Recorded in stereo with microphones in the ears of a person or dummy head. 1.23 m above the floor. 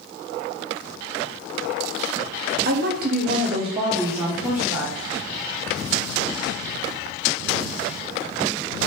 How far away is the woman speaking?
About 0.6 m.